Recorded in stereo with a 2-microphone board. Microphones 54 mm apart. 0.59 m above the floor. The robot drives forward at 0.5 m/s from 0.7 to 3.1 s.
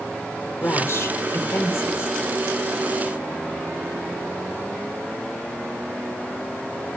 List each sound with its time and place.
0.6 s a woman speaking: 55° left (ahead or behind), 2.0 m; by 2.2 s 45° left (ahead or behind), 2.5 m